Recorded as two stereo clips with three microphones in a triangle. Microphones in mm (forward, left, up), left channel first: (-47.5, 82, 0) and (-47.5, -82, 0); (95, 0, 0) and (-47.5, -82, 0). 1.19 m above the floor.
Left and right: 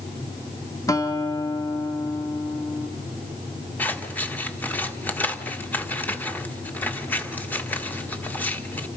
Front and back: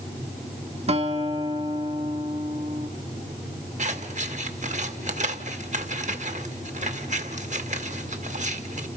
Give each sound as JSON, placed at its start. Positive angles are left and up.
{"t": 0.9, "sound": "a guitar", "azimuth_deg": 160, "distance_m": 1.5}
{"t": 3.8, "sound": "scissors", "azimuth_deg": 170, "distance_m": 1.7}